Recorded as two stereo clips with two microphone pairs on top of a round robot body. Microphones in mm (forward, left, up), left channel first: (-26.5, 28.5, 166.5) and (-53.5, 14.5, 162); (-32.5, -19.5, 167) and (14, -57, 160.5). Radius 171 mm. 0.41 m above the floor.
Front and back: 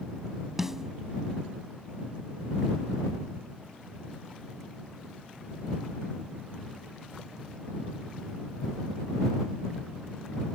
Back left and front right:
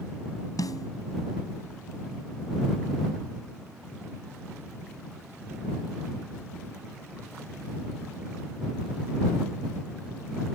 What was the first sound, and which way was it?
A snare drum, 130° left.